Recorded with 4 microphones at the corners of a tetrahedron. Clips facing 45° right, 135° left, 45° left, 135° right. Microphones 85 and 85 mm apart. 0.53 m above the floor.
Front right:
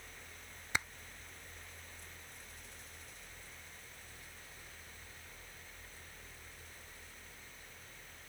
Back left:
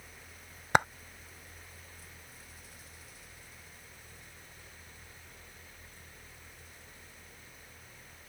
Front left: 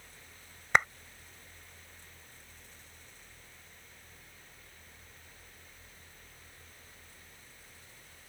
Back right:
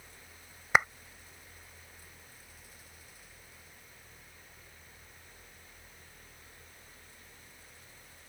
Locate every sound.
0.7 s a clap: 140° left